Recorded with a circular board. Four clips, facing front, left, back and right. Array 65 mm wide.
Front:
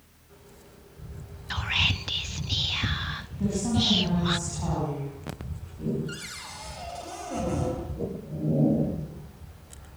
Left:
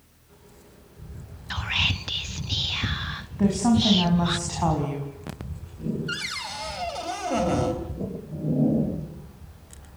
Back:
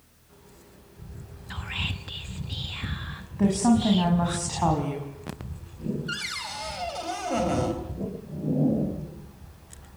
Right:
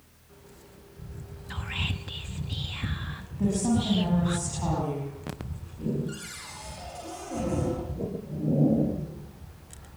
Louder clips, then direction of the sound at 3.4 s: Left 5 dB, back 6 dB; 140° left.